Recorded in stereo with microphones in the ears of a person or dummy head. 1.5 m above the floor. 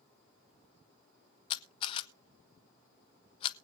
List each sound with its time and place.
1.5 s a camera shutter: 35° left (ahead or behind), 0.6 m